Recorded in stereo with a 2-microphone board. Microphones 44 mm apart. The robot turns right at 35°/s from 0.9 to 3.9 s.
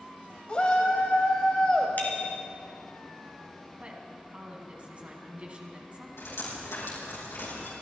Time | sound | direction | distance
0.5 | a shout | 30° left (ahead or behind) | 1.2 m
2.0 | a bicycle bell | 40° left (ahead or behind) | 2.5 m
3.8 | a woman speaking | 30° right (ahead or behind) | 2.5 m
6.2 | dripping | 85° left | 5 m